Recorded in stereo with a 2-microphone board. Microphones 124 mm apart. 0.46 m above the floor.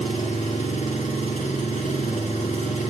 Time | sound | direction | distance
0.0 | an engine running | 85° left | 2 m